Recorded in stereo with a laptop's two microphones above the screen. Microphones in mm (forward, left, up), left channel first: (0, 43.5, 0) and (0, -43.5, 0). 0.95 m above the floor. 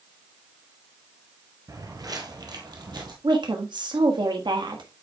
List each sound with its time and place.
1.7 s footsteps: 40° right (ahead or behind), 1.2 m; by 3.1 s 55° right (ahead or behind), 1.9 m
3.2 s a woman speaking: 60° right (ahead or behind), 1.3 m